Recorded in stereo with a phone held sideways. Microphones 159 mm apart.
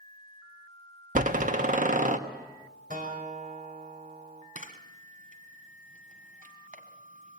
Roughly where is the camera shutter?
Right.